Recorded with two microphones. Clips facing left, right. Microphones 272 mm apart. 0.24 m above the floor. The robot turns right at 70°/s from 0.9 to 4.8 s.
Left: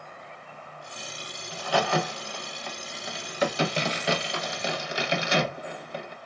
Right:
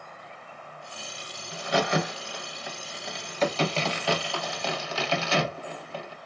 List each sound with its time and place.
1.5 s a crack: 20° right (ahead or behind), 0.7 m; by 6.2 s 15° left (ahead or behind), 0.7 m